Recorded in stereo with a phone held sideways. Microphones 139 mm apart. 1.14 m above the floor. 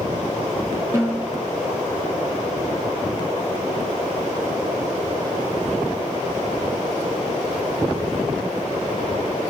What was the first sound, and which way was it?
A snare drum, 20° right (ahead or behind).